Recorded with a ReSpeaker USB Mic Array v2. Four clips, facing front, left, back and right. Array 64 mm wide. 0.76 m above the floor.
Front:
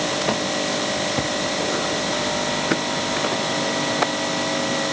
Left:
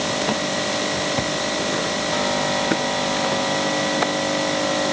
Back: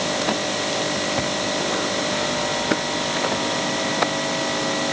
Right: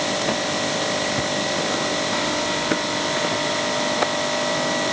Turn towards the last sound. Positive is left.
No sound to turn to.